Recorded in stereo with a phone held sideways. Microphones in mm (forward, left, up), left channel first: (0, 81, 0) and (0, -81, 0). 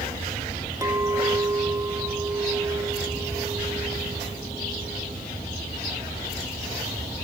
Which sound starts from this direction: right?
A clink, at 0.8 s.